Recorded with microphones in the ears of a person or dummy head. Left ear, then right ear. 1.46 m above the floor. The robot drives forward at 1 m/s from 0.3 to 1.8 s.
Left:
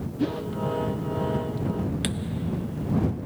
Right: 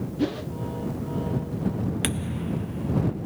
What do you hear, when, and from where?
0.2 s a whoosh: 10° right (ahead or behind)
2.0 s a thud: 25° right (ahead or behind)